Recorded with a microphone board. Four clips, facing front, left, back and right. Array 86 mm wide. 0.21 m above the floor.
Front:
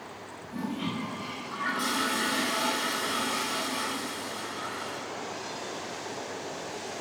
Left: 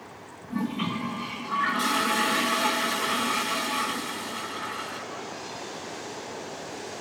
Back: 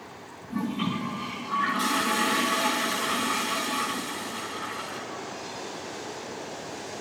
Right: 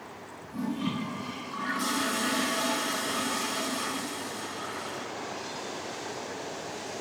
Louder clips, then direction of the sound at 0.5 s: Left 2 dB, back 4 dB; 125° left.